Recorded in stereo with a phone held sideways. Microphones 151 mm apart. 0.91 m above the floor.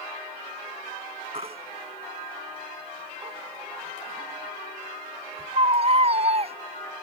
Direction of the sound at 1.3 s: 45° right (ahead or behind).